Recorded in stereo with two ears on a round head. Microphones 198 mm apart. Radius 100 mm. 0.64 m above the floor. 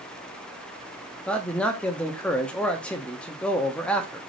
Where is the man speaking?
5° left (ahead or behind), 0.6 m.